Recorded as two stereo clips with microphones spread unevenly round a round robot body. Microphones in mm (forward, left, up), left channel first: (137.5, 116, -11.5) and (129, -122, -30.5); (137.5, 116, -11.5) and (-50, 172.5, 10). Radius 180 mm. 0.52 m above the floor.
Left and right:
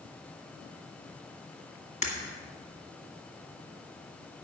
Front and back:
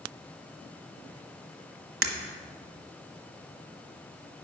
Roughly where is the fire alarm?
No fire alarm in this recording.